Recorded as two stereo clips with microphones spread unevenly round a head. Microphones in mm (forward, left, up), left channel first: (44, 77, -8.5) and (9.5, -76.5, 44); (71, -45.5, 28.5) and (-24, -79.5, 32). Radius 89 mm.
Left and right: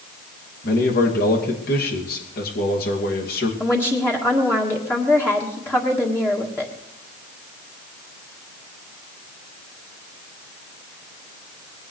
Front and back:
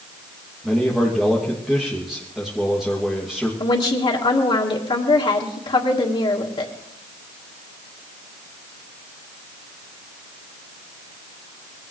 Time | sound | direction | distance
0.6 | a man speaking | 110° left | 2.5 m
3.6 | a woman speaking | 5° right | 1.8 m